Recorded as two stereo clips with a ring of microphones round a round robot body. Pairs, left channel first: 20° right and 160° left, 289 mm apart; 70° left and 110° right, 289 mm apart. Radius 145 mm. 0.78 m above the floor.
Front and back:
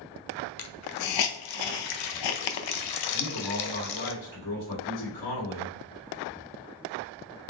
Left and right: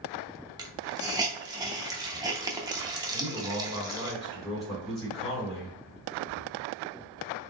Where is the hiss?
35° right, 0.5 m.